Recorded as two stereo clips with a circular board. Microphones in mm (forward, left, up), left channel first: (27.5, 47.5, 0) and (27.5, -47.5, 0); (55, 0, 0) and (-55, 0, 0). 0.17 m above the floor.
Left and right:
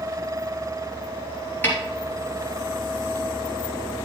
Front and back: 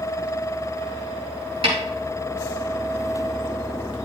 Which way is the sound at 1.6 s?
160° left.